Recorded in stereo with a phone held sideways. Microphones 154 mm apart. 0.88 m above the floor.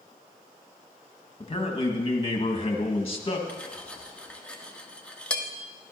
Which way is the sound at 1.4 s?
40° left (ahead or behind).